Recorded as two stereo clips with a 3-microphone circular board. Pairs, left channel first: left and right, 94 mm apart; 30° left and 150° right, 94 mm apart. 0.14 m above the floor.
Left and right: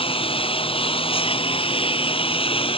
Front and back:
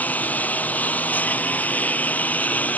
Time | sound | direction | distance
0.0 | a lawn mower | 105° left | ?